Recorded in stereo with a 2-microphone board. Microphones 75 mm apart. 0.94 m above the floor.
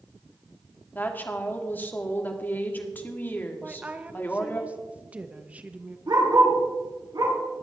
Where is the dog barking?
75° right (ahead or behind), 3.5 m.